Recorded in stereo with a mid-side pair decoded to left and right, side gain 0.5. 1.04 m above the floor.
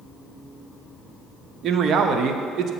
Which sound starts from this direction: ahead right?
A man speaking, at 1.6 s.